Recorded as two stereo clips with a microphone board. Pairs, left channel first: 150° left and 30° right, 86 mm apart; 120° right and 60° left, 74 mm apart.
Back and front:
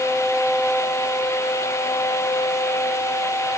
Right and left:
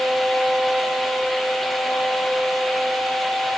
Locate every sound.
Only background noise.